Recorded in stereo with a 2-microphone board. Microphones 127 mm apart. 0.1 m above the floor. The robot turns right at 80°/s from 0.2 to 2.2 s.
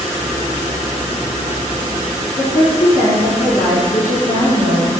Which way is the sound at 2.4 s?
50° left (ahead or behind).